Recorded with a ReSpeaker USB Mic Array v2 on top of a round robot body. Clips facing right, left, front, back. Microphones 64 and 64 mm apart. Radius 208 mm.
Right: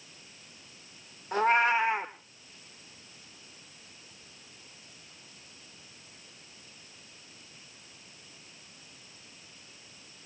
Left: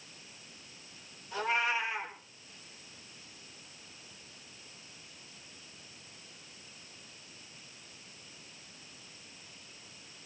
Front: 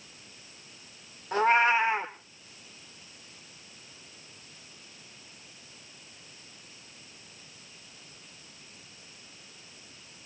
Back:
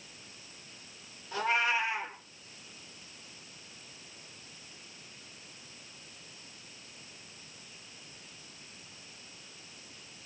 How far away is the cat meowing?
About 1.2 m.